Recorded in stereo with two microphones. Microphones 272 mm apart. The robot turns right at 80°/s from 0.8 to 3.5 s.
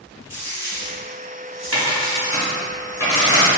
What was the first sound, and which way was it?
A dropped coin, 10° left (ahead or behind).